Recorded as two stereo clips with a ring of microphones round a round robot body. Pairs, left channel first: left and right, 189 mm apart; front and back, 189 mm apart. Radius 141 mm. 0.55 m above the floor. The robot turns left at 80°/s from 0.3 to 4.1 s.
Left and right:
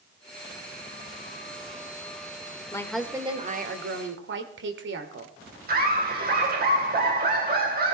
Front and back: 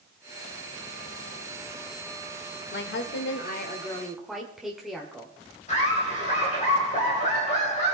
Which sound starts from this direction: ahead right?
Laughter, at 5.7 s.